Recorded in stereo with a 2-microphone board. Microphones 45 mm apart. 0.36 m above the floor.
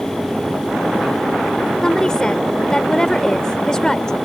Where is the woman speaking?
15° left (ahead or behind).